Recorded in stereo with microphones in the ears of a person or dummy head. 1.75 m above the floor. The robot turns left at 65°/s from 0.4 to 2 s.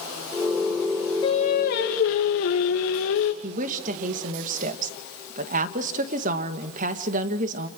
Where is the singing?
150° left, 3 m; by 3.3 s 100° left, 3 m.